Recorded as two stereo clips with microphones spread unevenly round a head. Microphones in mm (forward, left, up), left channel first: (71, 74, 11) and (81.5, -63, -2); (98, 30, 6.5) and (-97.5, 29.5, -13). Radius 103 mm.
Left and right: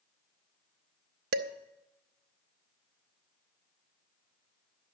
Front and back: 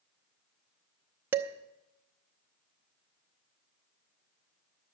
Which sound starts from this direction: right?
Dishes clattering, at 1.3 s.